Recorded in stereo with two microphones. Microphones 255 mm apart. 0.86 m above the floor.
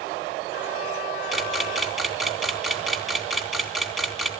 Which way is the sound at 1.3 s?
Centre (ahead or behind).